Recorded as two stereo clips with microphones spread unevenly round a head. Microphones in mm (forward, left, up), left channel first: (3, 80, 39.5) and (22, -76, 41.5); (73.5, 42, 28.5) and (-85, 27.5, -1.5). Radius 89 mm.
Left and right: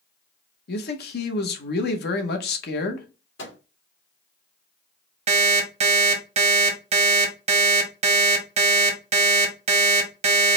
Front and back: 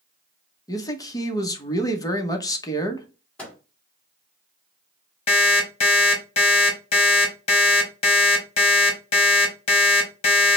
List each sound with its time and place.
0.7 s a man speaking: 70° left, 0.9 m
3.4 s a microwave: 85° left, 1.9 m
5.3 s an alarm clock: 40° right, 0.9 m